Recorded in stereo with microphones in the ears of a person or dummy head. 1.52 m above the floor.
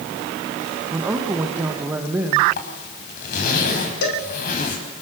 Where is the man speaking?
10° right (ahead or behind), 1.4 m.